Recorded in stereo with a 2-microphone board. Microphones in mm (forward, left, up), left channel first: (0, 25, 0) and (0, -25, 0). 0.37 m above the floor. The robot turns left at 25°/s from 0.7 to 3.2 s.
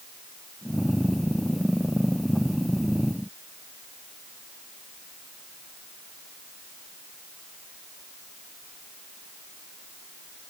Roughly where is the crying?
I don't hear crying.